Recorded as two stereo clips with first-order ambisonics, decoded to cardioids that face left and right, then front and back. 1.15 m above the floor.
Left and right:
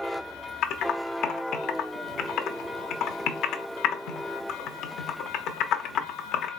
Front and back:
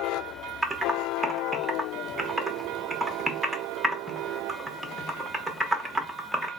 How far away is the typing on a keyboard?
About 0.7 m.